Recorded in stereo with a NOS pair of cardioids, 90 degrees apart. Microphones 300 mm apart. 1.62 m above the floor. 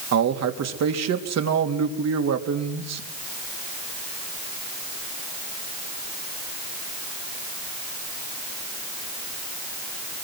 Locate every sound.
0.1 s a man speaking: 60° right, 3.5 m